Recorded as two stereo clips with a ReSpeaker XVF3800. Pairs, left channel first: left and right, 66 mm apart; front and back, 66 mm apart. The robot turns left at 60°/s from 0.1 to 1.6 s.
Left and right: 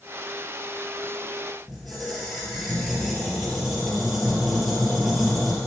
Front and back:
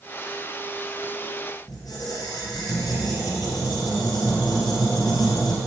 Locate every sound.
1.7 s a squeak: straight ahead, 3 m